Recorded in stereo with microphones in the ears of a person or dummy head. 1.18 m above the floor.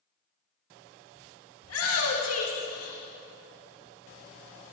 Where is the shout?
80° left, 2.0 m; by 3.0 s 60° left (ahead or behind), 1.5 m.